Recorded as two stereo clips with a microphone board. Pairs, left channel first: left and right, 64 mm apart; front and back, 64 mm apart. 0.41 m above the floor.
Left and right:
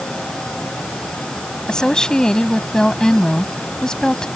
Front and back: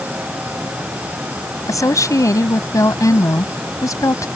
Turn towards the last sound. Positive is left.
turn(degrees=10)